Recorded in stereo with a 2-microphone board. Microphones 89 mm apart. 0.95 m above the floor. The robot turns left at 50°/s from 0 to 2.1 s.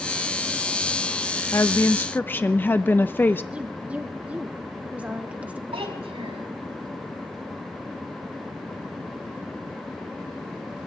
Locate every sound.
1.5 s a woman speaking: 30° left (ahead or behind), 0.6 m; by 3.4 s 20° left (ahead or behind), 0.6 m
3.5 s a woman speaking: 15° right (ahead or behind), 1.1 m
5.7 s a child speaking: 80° right, 4.5 m